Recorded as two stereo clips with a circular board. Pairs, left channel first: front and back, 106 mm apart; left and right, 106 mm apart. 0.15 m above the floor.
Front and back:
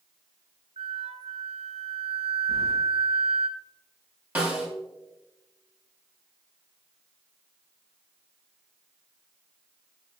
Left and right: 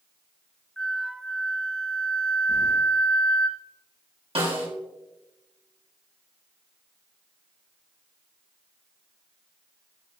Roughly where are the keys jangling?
Behind left.